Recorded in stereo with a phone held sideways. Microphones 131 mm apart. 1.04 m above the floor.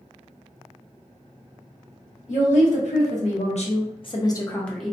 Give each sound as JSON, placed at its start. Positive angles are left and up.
{"t": 2.3, "sound": "a woman speaking", "side_deg": 70, "distance_m": 1.4}